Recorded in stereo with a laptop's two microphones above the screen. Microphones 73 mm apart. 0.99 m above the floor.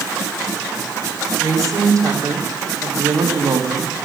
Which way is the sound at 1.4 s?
50° right (ahead or behind).